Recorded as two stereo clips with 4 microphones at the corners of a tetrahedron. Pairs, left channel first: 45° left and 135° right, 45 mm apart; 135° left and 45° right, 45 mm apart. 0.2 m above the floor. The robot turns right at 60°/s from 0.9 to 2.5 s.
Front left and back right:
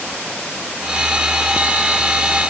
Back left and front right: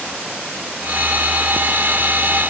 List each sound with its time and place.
Only background noise.